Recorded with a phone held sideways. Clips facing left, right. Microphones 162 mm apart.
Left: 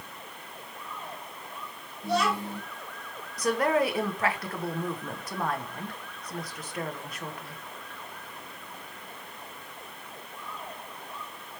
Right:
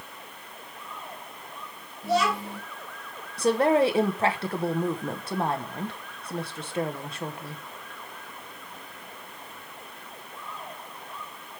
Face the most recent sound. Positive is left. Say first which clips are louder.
# right 4 dB
turn(degrees=-30)  # may be behind; listen again after turning